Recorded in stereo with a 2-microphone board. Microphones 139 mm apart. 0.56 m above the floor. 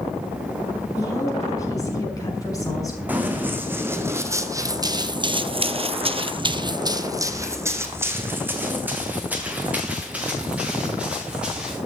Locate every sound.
1.0 s a woman speaking: 25° left (ahead or behind), 5.5 m
3.1 s running footsteps: 10° right (ahead or behind), 2 m; by 11.8 s 5° right (ahead or behind), 4.5 m